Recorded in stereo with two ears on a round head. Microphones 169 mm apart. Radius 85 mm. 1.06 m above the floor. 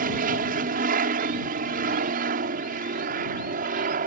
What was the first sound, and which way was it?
An aircraft, 50° right (ahead or behind).